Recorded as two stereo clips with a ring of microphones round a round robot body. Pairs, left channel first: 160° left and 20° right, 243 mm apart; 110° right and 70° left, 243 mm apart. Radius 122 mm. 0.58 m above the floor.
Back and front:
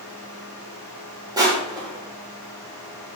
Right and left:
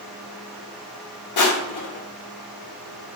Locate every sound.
1.4 s crushing: 100° right, 0.6 m